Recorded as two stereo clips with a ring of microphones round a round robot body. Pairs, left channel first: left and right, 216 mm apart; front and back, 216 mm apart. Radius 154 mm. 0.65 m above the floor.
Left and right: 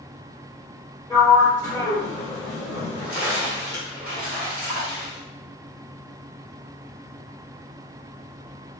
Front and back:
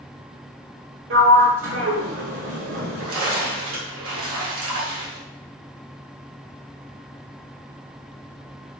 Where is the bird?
No bird in this recording.